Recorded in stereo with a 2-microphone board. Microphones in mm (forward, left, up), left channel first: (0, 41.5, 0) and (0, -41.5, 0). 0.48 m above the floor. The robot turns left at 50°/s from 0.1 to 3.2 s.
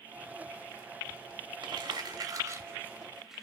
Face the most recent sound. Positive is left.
turn(degrees=-5)  # may be behind; listen again after turning